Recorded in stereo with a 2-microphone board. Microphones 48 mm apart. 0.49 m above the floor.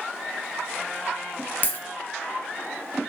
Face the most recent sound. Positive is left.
turn(degrees=40)  # may be behind; listen again after turning